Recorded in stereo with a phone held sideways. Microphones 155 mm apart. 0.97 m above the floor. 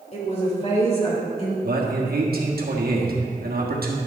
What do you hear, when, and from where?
0.1 s a woman speaking: 45° left (ahead or behind), 3.5 m; by 1.5 s 40° left (ahead or behind), 2.5 m
1.6 s a man speaking: 80° right, 1.5 m